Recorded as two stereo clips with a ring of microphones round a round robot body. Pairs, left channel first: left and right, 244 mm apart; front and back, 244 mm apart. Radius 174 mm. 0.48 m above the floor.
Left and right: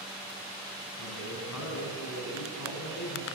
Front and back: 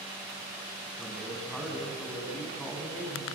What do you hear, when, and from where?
1.0 s a man speaking: 90° left, 5 m